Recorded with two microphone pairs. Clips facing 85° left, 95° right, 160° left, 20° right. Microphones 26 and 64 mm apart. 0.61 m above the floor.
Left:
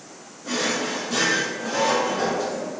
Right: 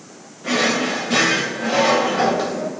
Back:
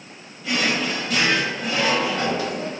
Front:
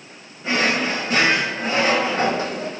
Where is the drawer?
80° right, 1.6 m.